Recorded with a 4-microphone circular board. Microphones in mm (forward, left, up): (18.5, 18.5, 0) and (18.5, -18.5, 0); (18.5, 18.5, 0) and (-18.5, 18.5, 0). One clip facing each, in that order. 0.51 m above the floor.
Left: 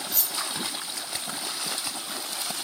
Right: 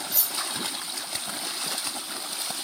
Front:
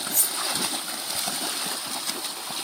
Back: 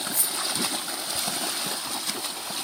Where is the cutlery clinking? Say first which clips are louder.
Even, even; 5° right, 1.7 m.